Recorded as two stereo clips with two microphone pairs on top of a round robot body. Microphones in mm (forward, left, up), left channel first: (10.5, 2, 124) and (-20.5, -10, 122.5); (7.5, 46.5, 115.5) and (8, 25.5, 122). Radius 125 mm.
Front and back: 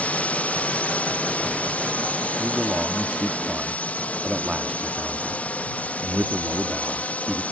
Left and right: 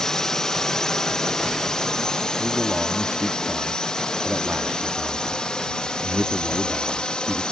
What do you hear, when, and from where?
0.0 s a drone: 50° left; by 7.5 s 65° left
2.4 s a man speaking: 95° right